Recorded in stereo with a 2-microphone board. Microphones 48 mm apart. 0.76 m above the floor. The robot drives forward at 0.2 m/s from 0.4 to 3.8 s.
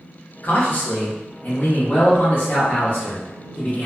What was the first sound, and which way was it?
A man speaking, 40° left (ahead or behind).